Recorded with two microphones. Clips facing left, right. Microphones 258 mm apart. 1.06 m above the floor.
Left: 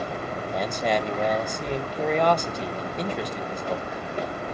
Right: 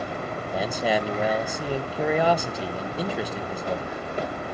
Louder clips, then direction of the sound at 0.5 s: Right 1 dB; 5° right (ahead or behind).